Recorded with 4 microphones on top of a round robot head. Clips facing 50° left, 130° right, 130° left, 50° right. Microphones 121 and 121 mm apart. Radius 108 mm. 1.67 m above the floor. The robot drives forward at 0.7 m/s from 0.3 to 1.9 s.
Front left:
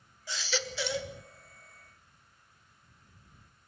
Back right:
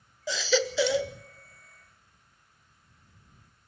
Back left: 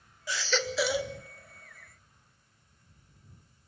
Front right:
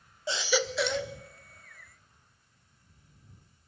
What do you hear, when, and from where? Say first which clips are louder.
0.3 s a baby crying: back right 10 dB, front right 3 dB; 110° right, 0.6 m; by 1.1 s 150° right, 0.9 m